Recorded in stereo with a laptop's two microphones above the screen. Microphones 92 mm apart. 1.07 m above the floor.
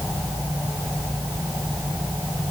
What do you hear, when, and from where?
Only background noise.